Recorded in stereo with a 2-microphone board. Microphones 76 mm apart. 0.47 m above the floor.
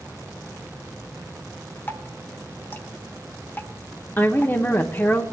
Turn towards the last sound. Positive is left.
turn(degrees=25)  # may be behind; listen again after turning